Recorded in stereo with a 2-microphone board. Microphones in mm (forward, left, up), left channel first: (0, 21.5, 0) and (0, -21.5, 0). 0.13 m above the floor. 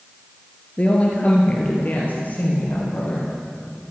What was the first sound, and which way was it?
A woman speaking, 35° left (ahead or behind).